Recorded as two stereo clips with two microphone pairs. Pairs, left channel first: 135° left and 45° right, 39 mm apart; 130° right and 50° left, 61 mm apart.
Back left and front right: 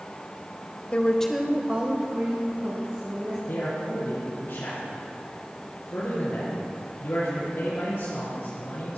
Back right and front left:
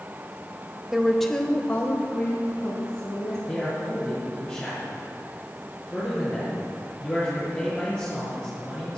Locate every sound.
0.9 s a woman speaking: 120° left, 1.0 m; by 3.4 s 70° right, 3 m
3.5 s a man speaking: 155° left, 5 m